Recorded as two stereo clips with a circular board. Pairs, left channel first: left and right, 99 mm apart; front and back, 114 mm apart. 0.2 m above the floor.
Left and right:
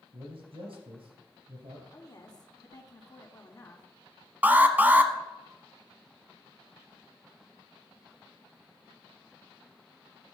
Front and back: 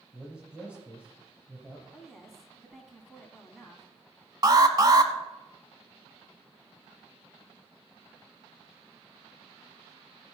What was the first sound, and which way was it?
A man speaking, 100° right.